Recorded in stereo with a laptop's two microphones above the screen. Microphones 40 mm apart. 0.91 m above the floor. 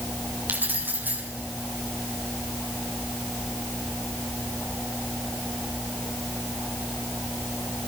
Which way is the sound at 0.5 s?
50° right (ahead or behind).